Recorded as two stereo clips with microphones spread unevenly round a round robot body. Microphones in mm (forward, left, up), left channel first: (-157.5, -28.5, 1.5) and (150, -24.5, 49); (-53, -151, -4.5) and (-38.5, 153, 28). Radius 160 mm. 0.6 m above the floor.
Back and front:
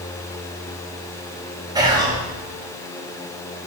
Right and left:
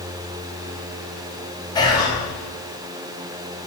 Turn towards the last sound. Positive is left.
turn(degrees=-80)